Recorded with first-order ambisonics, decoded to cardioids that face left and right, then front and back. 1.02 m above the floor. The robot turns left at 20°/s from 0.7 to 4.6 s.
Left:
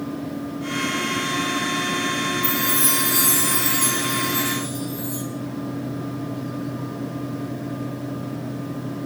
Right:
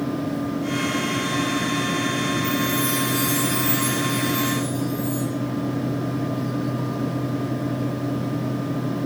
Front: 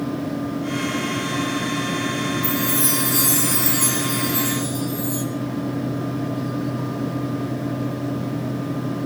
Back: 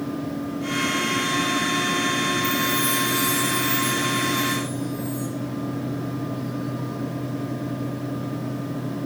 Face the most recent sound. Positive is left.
turn(degrees=10)